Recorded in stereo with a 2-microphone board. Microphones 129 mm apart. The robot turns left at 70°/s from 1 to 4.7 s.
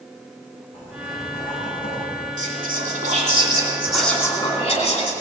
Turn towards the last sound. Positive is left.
turn(degrees=140)